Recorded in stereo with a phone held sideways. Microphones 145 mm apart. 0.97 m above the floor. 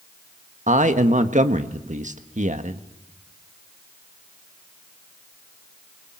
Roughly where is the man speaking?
Right.